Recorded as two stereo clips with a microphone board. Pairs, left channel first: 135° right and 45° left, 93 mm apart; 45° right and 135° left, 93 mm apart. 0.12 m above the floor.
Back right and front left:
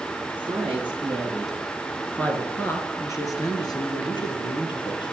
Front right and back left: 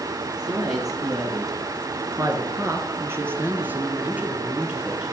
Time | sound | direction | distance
0.3 | a woman speaking | 105° left | 2 m